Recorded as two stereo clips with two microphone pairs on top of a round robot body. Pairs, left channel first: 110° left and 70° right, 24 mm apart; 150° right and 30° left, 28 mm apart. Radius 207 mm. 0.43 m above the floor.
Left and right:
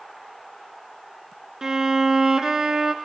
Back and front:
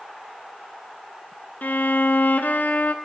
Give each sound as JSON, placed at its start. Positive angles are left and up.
{"t": 1.6, "sound": "a violin", "azimuth_deg": -135, "distance_m": 0.7}